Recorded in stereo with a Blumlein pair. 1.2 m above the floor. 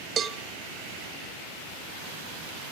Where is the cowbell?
20° right, 0.9 m.